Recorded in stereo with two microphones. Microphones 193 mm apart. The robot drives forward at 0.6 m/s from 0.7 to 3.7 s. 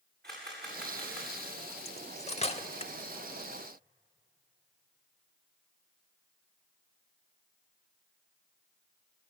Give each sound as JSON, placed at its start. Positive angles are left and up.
{"t": 0.2, "sound": "a camera shutter", "side_deg": -60, "distance_m": 9.5}
{"t": 1.9, "sound": "cutlery clinking", "side_deg": 30, "distance_m": 0.9}